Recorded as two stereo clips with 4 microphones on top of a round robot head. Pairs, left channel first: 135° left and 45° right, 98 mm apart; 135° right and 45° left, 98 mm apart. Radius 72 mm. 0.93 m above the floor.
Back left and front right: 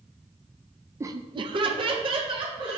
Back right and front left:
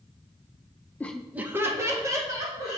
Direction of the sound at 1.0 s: 80° right.